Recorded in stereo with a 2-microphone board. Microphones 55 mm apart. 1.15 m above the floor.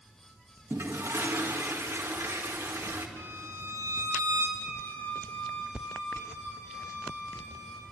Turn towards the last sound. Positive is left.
turn(degrees=75)  # may be behind; listen again after turning